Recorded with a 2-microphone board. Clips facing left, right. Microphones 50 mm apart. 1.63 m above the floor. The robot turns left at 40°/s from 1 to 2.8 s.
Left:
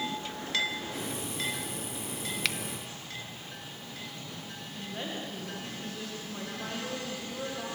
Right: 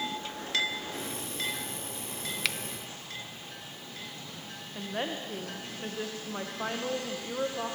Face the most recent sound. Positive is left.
turn(degrees=-35)  # may be behind; listen again after turning